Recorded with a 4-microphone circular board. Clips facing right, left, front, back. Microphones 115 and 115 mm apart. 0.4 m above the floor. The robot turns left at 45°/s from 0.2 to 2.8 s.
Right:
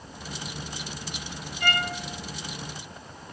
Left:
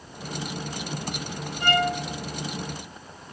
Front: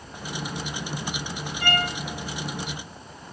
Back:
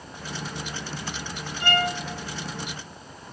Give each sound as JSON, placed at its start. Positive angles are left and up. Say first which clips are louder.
{"t": 1.6, "sound": "a violin", "louder": "left 6 dB, back 2 dB", "azimuth_deg": 70, "distance_m": 2.0}